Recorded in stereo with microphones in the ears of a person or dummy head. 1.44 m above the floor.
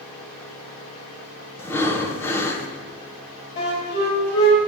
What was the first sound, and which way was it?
Breathing, 10° left (ahead or behind).